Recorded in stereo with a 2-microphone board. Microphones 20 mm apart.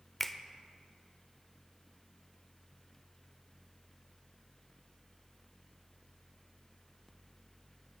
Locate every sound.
0.2 s a finger snap: 15° left (ahead or behind), 0.6 m